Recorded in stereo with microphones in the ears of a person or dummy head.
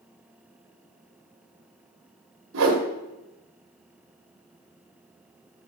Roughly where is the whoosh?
Right.